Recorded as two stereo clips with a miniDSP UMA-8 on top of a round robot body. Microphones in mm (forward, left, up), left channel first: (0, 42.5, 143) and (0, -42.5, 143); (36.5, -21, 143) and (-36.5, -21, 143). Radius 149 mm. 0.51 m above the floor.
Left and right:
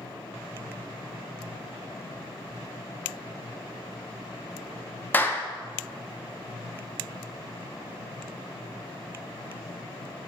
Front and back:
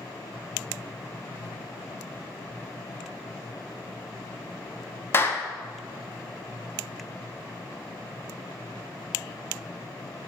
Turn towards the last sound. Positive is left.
turn(degrees=35)